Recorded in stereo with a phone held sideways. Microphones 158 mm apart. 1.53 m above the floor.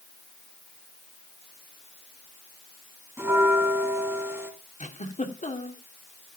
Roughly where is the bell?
Centre.